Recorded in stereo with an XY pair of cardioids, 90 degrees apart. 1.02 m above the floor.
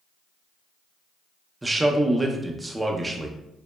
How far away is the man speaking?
About 0.5 m.